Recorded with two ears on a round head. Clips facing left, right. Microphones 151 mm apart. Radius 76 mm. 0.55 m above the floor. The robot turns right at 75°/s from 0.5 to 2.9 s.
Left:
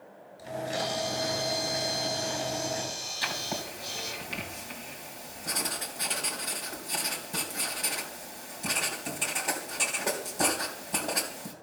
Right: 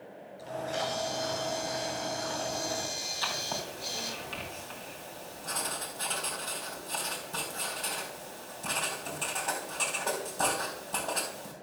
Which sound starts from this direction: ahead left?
A camera shutter, at 0.4 s.